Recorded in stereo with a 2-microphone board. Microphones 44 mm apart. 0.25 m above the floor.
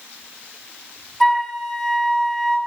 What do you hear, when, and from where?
1.2 s a flute: 5° left (ahead or behind), 2 m